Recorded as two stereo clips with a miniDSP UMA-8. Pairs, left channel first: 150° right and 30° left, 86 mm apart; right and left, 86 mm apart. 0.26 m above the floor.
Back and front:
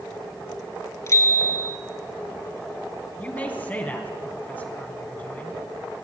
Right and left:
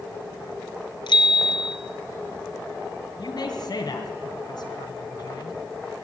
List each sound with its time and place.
1.1 s a bicycle bell: 100° right, 3 m
3.2 s a man speaking: 85° right, 2.5 m